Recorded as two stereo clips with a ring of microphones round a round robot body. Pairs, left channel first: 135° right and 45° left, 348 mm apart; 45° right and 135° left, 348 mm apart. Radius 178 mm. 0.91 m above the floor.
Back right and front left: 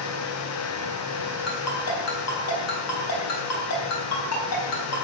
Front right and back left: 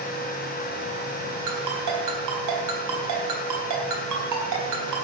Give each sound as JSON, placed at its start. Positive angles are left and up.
{"t": 1.5, "sound": "a ringtone", "azimuth_deg": 175, "distance_m": 4.0}